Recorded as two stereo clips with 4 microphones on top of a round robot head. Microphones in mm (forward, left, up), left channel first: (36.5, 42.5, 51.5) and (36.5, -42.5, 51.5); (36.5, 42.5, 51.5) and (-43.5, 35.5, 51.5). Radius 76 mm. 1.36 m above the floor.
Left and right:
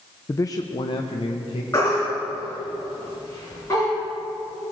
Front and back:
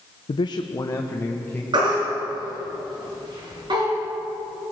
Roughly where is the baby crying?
Behind.